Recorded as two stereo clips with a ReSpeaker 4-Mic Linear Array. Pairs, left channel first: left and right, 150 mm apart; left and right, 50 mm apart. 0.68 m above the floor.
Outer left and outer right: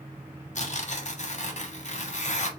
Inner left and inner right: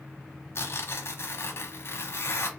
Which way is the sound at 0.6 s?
50° left (ahead or behind).